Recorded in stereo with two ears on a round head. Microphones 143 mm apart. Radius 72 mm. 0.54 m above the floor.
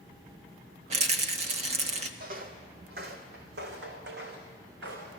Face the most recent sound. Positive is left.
turn(degrees=-80)